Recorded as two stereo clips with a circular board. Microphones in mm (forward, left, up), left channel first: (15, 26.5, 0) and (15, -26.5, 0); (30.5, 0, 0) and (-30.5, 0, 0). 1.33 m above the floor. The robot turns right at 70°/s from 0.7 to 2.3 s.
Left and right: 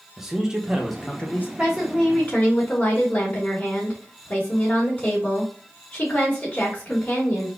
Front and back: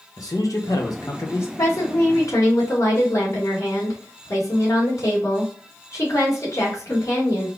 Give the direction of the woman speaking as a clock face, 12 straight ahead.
1 o'clock.